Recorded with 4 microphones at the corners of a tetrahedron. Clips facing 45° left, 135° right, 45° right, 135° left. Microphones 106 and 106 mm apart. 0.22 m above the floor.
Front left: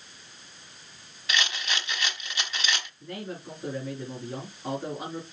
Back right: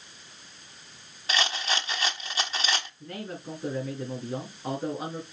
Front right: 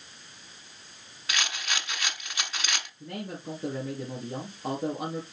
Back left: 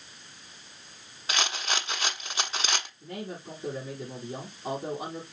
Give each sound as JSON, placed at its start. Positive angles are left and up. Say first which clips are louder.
{"t": 1.3, "sound": "a rattle", "louder": "back right 2 dB, back left 3 dB", "azimuth_deg": 180, "distance_m": 1.1}
{"t": 3.0, "sound": "a man speaking", "louder": "even, front right 1 dB", "azimuth_deg": -55, "distance_m": 4.0}